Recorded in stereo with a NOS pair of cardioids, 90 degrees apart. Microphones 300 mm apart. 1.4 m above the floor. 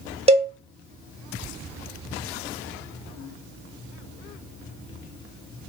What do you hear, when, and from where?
0.3 s a cowbell: 20° right, 0.8 m